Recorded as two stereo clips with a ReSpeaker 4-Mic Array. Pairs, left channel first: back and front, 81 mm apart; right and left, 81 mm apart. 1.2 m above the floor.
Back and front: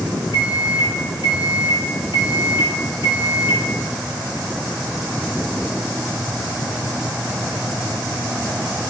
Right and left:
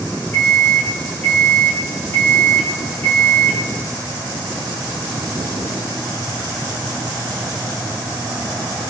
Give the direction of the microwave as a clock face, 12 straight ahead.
5 o'clock.